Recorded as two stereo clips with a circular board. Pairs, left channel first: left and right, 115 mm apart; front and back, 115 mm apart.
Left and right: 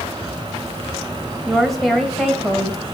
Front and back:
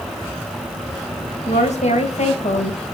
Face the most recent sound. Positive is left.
turn(degrees=0)